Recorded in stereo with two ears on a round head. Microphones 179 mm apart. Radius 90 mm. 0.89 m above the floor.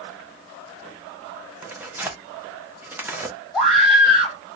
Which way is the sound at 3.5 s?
5° left (ahead or behind).